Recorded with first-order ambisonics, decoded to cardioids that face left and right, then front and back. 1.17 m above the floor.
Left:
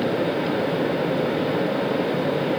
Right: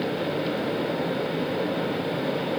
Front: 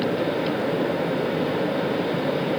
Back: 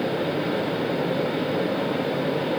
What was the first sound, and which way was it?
Only background noise.